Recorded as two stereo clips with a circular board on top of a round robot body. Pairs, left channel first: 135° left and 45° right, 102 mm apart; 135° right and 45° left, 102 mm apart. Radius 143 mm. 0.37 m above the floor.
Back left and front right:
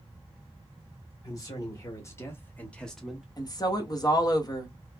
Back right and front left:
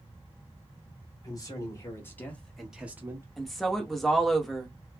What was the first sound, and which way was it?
A man speaking, 175° right.